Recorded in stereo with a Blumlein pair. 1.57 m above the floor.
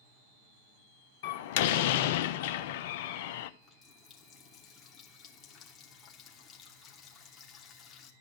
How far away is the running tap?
About 2.5 m.